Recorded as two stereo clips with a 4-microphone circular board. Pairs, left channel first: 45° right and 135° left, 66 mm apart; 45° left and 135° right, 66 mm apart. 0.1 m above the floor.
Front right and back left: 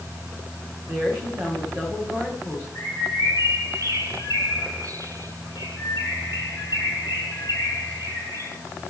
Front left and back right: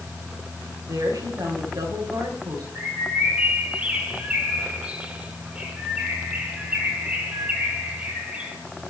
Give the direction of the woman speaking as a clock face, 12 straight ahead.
6 o'clock.